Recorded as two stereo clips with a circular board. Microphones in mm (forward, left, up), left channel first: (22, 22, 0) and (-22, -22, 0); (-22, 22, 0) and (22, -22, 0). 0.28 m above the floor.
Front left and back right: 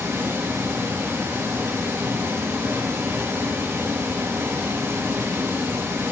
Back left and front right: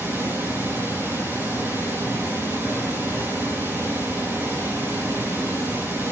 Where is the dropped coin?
No dropped coin in this recording.